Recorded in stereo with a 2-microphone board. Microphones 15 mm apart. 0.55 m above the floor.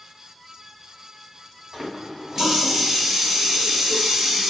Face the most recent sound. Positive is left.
turn(degrees=-30)  # may be behind; listen again after turning